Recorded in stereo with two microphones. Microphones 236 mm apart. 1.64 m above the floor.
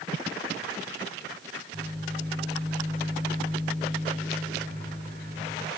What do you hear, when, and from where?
1.7 s a microwave: 40° right (ahead or behind), 7.5 m